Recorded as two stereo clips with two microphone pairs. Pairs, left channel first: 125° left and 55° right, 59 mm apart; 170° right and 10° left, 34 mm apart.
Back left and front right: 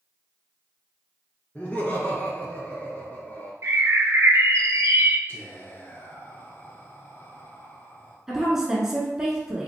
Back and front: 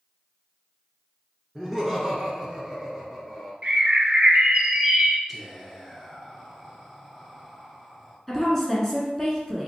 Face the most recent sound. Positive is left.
turn(degrees=-115)